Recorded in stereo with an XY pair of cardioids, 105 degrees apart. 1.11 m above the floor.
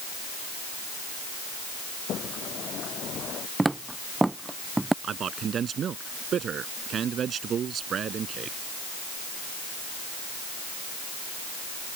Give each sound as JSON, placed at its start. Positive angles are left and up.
{"t": 2.1, "sound": "a sliding door", "azimuth_deg": 60}
{"t": 3.6, "sound": "footsteps", "azimuth_deg": -15}
{"t": 5.0, "sound": "a man speaking", "azimuth_deg": -55}